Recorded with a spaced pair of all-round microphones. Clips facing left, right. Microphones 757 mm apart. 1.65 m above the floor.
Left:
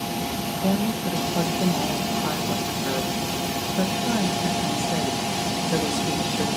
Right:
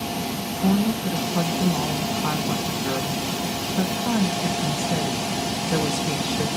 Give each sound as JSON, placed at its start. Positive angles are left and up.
{"t": 0.6, "sound": "a woman speaking", "side_deg": -35, "distance_m": 1.5}